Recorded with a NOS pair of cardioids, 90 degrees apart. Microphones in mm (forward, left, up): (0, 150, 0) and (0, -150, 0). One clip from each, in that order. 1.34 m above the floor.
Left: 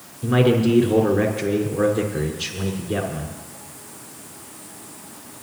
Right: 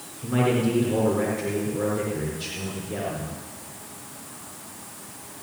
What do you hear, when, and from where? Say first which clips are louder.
0.2 s a man speaking: left 5 dB; 65° left, 4.5 m